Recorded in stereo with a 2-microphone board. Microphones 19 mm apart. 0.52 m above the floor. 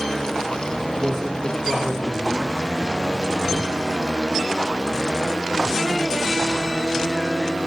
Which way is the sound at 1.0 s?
25° left (ahead or behind).